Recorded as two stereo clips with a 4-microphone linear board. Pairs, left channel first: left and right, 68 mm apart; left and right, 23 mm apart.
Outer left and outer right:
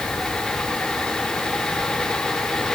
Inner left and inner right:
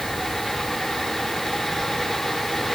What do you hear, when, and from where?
Only background noise.